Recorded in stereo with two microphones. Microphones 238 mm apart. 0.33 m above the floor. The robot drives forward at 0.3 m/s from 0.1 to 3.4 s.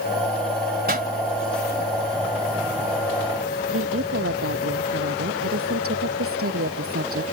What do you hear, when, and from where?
0.9 s a pop: 40° right (ahead or behind)
3.7 s a woman speaking: 65° right (ahead or behind)